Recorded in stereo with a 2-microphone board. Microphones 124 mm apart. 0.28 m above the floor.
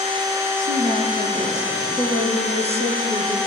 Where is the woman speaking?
70° right (ahead or behind), 4.5 m; by 3.4 s 50° right (ahead or behind), 4.5 m.